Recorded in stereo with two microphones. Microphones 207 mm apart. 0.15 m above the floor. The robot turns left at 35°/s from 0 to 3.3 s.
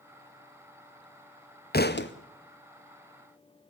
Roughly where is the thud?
Left.